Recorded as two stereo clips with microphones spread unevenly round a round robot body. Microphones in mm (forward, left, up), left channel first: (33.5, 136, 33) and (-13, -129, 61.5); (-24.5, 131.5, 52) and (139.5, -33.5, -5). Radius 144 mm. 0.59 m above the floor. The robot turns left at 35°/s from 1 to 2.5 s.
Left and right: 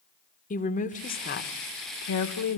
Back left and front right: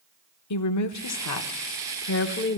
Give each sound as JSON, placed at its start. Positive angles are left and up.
{"t": 0.5, "sound": "a woman speaking", "azimuth_deg": 135, "distance_m": 1.3}